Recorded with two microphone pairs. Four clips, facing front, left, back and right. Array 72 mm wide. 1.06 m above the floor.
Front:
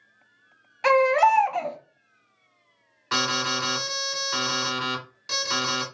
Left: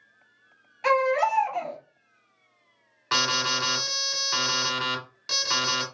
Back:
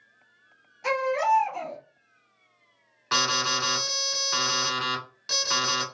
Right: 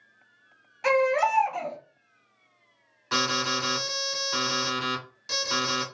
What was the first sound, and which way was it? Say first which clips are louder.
A baby crying: even, front 6 dB; straight ahead.